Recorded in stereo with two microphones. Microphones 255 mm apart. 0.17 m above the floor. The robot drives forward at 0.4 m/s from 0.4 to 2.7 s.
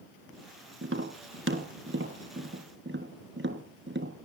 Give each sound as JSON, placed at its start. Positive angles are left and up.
{"t": 0.8, "sound": "tapping", "side_deg": -55, "distance_m": 3.0}